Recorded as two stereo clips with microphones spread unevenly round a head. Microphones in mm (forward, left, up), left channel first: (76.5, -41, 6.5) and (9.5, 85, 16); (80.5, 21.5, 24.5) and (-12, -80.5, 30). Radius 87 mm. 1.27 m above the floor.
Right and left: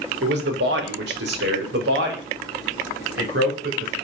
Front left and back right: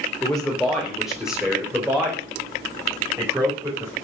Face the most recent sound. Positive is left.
turn(degrees=155)